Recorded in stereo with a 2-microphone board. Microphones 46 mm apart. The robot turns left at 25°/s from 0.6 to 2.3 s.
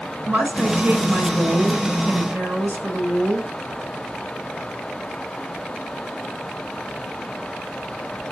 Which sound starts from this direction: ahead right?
A woman speaking, at 0.3 s.